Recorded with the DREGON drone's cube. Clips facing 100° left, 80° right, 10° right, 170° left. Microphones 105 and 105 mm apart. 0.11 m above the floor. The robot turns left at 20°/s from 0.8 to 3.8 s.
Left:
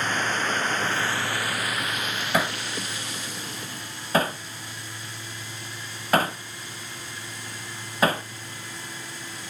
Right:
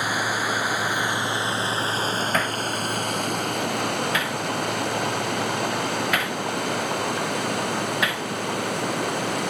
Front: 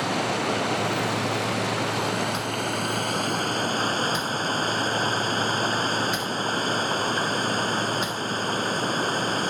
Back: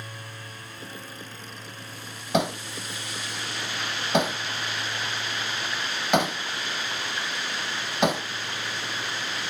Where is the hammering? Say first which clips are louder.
Right 2 dB, back 1 dB; straight behind; by 8.3 s 150° left.